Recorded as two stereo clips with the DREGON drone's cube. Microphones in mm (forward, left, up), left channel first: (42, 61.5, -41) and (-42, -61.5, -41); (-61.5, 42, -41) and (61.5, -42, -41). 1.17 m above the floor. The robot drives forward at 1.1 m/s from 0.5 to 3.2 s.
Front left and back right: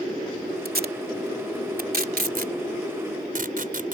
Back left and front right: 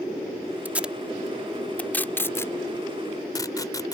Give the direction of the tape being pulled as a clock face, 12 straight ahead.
4 o'clock.